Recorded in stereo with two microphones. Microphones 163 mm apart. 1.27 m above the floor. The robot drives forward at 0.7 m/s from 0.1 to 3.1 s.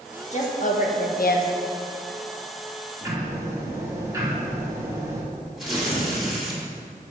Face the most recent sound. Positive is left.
turn(degrees=-5)  # may be behind; listen again after turning